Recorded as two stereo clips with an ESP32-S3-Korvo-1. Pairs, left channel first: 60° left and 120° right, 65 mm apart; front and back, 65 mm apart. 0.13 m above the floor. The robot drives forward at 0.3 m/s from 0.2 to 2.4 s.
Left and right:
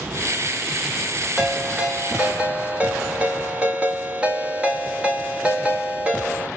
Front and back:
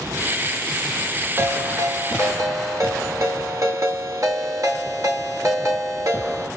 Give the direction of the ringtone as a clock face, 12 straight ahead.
6 o'clock.